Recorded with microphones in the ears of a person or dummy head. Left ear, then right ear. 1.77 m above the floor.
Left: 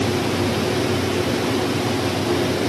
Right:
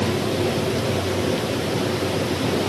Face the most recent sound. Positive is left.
No sound to turn to.